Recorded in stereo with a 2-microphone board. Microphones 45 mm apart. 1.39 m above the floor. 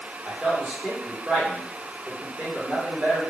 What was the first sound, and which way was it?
A man speaking, 25° right (ahead or behind).